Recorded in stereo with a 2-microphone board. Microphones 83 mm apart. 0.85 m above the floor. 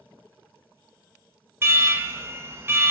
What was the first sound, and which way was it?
An alarm, 30° right (ahead or behind).